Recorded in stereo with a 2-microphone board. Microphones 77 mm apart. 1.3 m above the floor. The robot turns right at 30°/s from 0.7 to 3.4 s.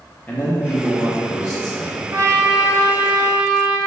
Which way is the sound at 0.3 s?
20° left.